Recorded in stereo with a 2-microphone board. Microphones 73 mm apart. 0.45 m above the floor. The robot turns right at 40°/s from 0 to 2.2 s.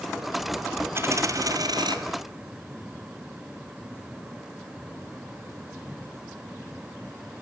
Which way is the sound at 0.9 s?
145° right.